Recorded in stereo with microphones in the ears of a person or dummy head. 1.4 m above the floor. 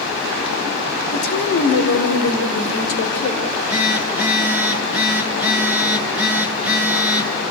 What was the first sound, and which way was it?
A woman speaking, 60° left (ahead or behind).